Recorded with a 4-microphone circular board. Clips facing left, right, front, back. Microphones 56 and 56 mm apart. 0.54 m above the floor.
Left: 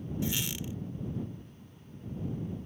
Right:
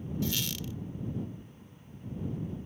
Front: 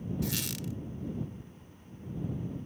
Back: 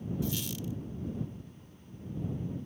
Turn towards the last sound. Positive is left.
turn(degrees=20)